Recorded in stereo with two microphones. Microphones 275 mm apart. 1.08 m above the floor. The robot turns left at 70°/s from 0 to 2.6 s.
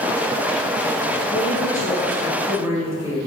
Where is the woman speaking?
80° left, 1.1 m; by 3.2 s 10° right, 1.1 m.